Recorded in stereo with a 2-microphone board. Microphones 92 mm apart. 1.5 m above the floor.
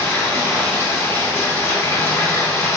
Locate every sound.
0.0 s running water: 20° left (ahead or behind), 1.1 m